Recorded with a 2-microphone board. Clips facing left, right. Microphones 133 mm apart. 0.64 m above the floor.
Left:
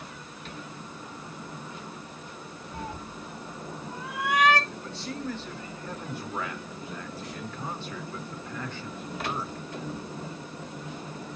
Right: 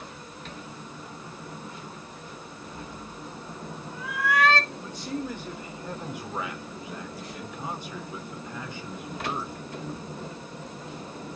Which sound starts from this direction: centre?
A man speaking, at 4.7 s.